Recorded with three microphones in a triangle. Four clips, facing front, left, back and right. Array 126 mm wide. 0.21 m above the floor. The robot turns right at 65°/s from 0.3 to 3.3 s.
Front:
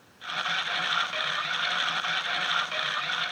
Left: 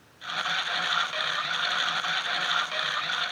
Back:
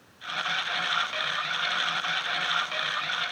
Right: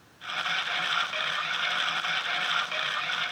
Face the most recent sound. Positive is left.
No sound to turn to.